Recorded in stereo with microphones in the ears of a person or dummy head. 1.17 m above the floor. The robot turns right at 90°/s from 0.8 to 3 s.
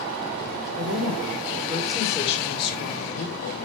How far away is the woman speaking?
About 3 m.